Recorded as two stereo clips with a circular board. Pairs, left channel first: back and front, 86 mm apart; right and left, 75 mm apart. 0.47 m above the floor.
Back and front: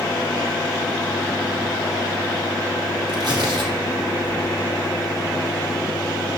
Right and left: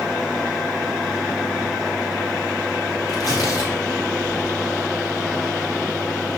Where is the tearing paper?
40° left, 4 m.